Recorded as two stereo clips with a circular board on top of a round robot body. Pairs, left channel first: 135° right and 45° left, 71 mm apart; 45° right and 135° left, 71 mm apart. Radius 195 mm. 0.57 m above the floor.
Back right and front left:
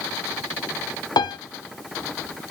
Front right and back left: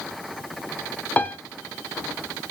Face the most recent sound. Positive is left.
turn(degrees=-115)